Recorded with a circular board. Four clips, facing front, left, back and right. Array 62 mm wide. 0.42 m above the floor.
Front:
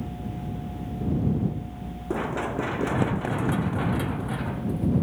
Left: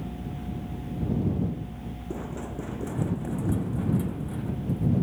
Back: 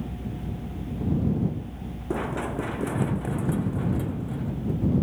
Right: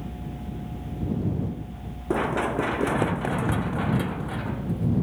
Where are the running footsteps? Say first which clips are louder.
Right 12 dB, front 1 dB; 85° right; by 5.0 s 40° right.